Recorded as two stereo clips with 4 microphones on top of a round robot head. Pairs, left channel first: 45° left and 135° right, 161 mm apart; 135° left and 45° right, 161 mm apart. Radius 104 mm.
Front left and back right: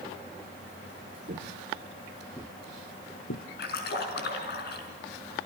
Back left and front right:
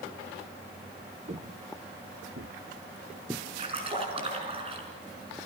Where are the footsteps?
95° right, 1.5 m; by 3.5 s 40° left, 1.5 m.